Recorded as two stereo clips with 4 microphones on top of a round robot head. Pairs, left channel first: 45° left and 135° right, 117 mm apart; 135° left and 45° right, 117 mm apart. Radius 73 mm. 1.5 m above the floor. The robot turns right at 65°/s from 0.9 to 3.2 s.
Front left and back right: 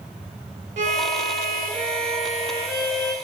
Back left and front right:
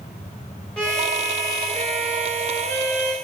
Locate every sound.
0.8 s a violin: 140° right, 0.8 m; by 3.1 s 5° left, 0.8 m